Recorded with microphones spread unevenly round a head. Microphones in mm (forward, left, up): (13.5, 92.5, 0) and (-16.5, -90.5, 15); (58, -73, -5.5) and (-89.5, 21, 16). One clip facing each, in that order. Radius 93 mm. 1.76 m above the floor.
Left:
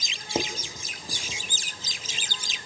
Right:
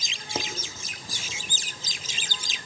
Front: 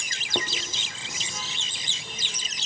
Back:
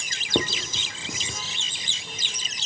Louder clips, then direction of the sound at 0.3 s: Left 4 dB, back 6 dB; 155° left.